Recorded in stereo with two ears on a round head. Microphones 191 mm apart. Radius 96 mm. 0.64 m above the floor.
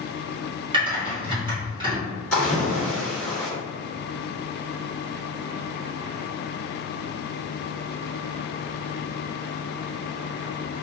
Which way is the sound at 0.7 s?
25° right (ahead or behind).